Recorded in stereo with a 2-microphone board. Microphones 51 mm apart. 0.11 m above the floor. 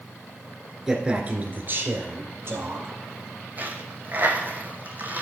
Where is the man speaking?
10° right (ahead or behind), 1.5 m; by 3.0 s 55° right (ahead or behind), 3 m.